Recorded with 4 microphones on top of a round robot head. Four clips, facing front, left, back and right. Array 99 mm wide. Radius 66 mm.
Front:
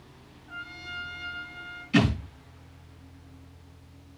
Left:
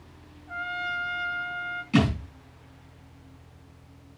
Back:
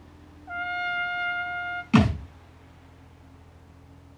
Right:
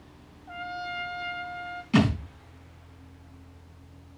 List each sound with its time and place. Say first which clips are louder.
0.5 s a trumpet: left 3 dB, back 11 dB; 155° right, 1.0 m
1.9 s a thud: right 1 dB, back 3 dB; 170° right, 5.5 m